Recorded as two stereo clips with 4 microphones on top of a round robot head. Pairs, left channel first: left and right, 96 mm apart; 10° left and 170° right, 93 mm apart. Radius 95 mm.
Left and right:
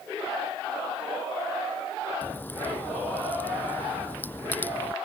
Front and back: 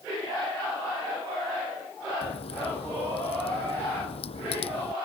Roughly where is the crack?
Ahead.